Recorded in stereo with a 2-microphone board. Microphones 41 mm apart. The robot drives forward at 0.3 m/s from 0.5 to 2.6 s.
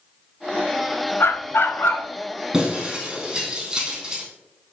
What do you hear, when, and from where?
1.2 s a dog barking: 70° left (ahead or behind), 0.8 m; by 2.1 s 65° left (ahead or behind), 0.8 m
2.5 s breaking glass: 15° right (ahead or behind), 3.5 m